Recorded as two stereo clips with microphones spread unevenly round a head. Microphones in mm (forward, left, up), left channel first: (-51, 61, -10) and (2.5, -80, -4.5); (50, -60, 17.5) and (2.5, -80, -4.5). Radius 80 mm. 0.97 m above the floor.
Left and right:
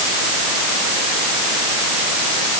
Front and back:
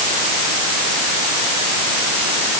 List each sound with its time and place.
Only background noise.